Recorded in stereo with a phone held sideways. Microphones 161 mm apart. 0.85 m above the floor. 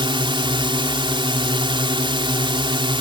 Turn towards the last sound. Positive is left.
turn(degrees=-30)  # may be behind; listen again after turning